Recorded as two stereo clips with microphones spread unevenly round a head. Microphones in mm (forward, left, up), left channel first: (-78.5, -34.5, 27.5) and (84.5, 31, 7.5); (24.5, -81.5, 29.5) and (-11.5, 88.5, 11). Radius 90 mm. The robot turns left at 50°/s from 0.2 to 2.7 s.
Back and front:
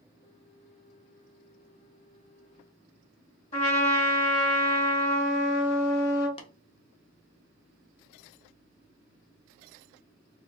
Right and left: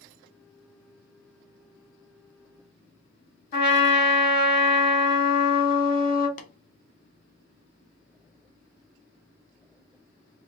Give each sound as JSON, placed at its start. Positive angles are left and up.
{"t": 3.5, "sound": "a trumpet", "azimuth_deg": -110, "distance_m": 1.6}
{"t": 6.4, "sound": "tapping", "azimuth_deg": -105, "distance_m": 0.5}